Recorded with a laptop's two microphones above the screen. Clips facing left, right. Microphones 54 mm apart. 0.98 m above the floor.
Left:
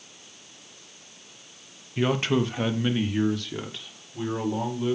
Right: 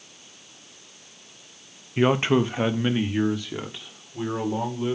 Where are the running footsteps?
No running footsteps in this recording.